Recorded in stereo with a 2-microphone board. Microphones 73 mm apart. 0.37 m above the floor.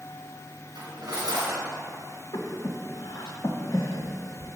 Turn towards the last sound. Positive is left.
turn(degrees=75)  # may be behind; listen again after turning